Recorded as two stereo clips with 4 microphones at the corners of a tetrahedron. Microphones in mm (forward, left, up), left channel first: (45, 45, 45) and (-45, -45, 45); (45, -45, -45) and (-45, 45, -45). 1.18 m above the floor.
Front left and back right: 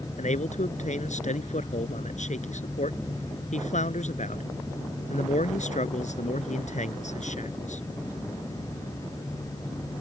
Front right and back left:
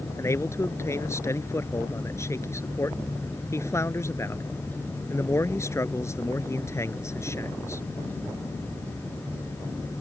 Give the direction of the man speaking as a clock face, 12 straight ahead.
11 o'clock.